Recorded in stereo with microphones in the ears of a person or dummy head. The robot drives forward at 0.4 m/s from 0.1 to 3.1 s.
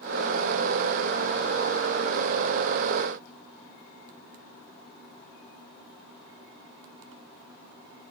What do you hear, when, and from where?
Only background noise.